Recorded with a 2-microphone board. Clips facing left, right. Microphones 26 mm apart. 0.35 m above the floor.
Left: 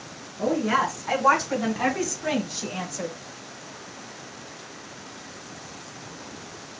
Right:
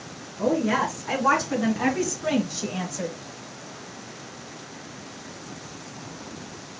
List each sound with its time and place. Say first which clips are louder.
0.4 s a woman speaking: even; 25° left (ahead or behind), 3 m; by 3.1 s centre (ahead or behind), 1.9 m